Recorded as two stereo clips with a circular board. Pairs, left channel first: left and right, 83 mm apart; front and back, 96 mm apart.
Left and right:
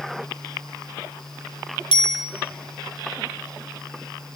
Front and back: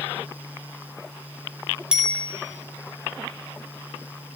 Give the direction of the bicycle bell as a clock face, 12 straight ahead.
9 o'clock.